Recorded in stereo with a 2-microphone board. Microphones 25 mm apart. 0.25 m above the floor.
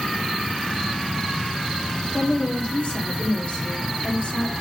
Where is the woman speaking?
55° left (ahead or behind), 3 m.